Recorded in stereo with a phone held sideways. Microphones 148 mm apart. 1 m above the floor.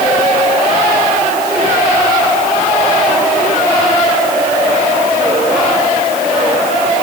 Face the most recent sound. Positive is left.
No sound to turn to.